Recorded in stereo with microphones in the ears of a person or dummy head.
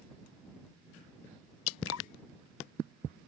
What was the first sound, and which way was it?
Dripping, 85° left.